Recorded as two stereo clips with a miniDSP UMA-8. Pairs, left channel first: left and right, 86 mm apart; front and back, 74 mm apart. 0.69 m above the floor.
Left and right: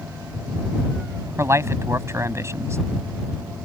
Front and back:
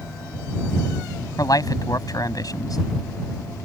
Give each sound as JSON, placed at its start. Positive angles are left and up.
{"t": 1.4, "sound": "a man speaking", "azimuth_deg": -35}